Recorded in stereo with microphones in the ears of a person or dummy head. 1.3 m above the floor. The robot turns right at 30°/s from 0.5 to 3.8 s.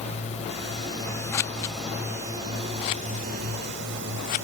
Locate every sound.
0.0 s a drone: 145° left; by 4.5 s 115° right
1.3 s scissors: 15° left (ahead or behind); by 4.5 s 30° left (ahead or behind)